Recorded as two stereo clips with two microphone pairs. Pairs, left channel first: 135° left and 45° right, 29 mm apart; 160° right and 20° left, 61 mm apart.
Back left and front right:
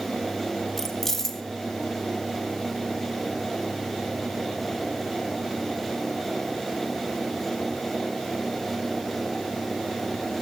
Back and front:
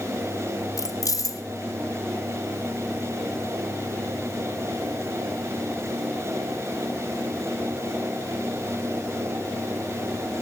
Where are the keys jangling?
145° right, 0.5 m.